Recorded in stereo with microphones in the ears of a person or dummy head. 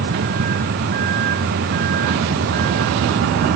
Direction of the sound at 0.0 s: 55° right (ahead or behind).